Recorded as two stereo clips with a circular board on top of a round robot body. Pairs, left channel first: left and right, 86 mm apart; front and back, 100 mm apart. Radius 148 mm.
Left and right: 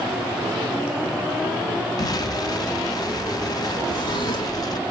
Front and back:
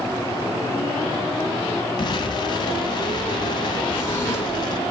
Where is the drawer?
65° left, 1.8 m.